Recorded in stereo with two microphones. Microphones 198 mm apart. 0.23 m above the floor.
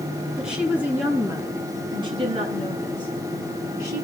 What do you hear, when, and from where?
0.4 s a woman speaking: 5° right (ahead or behind), 4 m; by 4.0 s 50° right (ahead or behind), 4 m